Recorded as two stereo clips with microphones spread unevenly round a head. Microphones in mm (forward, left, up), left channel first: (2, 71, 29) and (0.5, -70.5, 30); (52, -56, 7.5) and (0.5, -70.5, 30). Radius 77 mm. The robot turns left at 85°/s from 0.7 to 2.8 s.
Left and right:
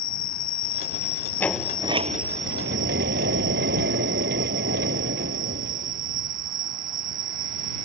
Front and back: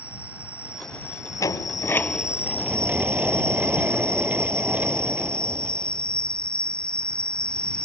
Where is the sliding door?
15° left; by 6.5 s 105° right.